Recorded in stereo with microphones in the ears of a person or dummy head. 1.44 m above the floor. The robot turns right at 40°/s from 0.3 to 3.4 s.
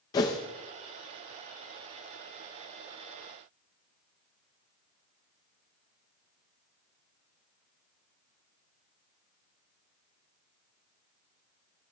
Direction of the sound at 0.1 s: 20° left (ahead or behind).